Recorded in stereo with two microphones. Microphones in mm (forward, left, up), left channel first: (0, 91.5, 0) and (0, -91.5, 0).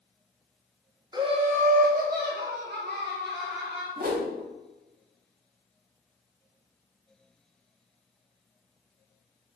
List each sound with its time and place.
1.1 s laughter: 20° right (ahead or behind), 0.6 m; by 3.9 s 75° right (ahead or behind), 2 m
4.0 s a whoosh: 55° right (ahead or behind), 0.8 m